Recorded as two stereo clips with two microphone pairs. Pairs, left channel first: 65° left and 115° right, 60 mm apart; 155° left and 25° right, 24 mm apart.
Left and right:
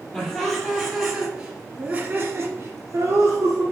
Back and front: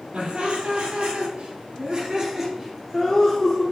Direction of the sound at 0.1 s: 15° right.